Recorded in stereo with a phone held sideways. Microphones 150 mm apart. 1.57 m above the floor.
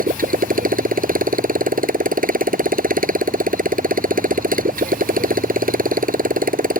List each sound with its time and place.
0.0 s a motorcycle: 65° right (ahead or behind)